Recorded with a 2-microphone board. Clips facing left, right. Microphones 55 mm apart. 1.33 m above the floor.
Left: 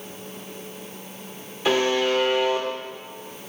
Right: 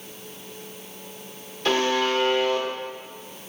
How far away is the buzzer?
About 1.0 m.